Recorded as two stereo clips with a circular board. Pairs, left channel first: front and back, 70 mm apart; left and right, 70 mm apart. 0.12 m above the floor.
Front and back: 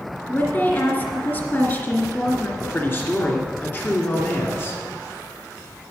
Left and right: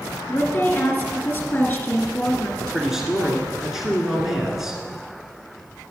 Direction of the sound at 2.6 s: 10° right.